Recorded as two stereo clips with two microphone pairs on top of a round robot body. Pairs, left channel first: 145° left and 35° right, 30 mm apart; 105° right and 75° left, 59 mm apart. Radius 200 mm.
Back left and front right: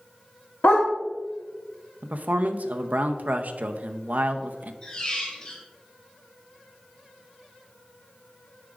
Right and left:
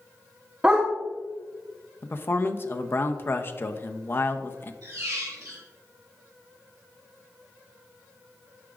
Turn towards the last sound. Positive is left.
turn(degrees=85)